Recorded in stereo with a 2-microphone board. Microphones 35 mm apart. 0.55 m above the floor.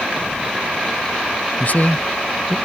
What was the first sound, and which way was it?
A man speaking, 45° left (ahead or behind).